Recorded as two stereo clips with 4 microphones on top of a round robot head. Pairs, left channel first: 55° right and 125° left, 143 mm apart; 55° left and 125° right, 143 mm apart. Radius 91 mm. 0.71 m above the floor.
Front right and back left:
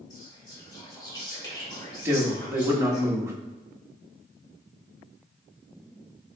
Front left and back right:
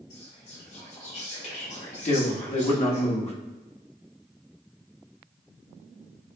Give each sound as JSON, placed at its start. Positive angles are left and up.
{"t": 0.1, "sound": "whispering", "azimuth_deg": 10, "distance_m": 2.0}
{"t": 2.0, "sound": "a man speaking", "azimuth_deg": 65, "distance_m": 1.2}